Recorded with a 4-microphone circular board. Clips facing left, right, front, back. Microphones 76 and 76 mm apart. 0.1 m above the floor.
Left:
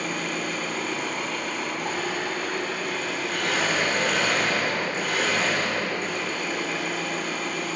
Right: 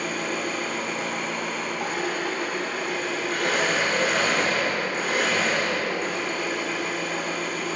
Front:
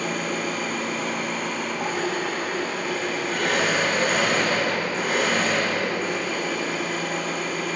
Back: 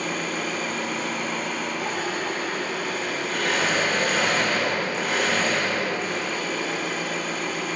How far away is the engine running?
About 3 m.